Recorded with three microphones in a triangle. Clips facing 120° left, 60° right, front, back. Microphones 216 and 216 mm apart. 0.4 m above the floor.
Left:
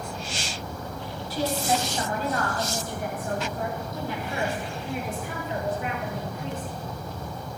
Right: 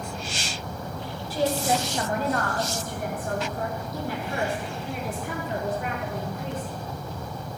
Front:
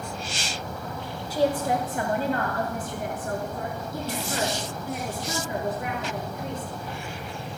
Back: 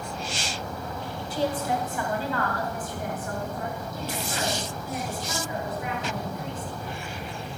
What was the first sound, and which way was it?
A woman speaking, 40° right.